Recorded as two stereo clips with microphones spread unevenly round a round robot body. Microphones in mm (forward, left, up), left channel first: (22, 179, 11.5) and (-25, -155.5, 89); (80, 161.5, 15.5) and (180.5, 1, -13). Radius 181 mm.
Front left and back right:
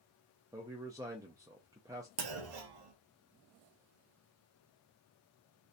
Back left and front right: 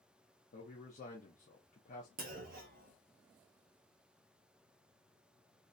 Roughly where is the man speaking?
Behind.